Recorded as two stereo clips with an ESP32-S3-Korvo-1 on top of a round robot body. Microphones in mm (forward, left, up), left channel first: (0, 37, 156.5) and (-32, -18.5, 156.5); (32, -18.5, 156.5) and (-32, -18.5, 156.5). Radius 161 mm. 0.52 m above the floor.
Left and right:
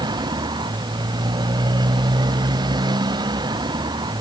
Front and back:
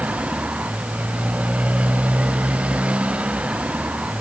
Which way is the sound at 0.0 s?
110° right.